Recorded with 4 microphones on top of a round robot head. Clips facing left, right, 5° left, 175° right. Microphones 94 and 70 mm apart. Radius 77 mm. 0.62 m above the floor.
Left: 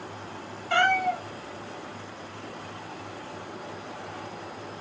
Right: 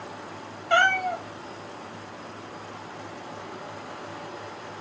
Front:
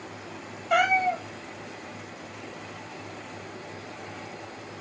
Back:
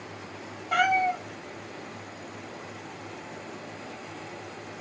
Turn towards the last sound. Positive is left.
turn(degrees=-45)